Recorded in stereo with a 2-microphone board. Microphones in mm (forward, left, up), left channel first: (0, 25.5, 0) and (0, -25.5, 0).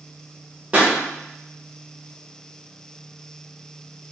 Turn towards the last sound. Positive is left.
turn(degrees=-30)  # may be behind; listen again after turning